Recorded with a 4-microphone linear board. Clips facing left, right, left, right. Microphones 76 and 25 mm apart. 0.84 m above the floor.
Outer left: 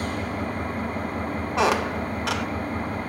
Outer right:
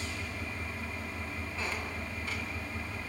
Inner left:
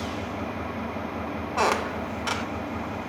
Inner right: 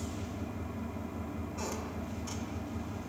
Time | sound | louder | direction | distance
0.0 | an engine running | outer left 11 dB, inner left 9 dB | 50° left (ahead or behind) | 0.7 m
1.6 | a squeak | outer left 17 dB, inner left 17 dB | 80° left | 0.5 m